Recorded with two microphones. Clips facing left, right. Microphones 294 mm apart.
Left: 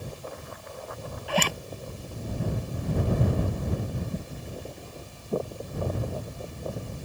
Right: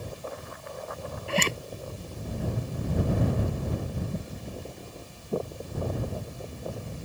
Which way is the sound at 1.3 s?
25° right (ahead or behind).